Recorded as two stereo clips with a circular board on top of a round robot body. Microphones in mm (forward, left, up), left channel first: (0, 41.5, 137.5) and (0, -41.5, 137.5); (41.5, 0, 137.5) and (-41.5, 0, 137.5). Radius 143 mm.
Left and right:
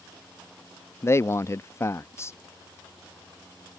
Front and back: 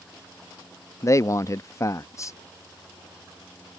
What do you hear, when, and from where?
1.0 s a man speaking: 40° left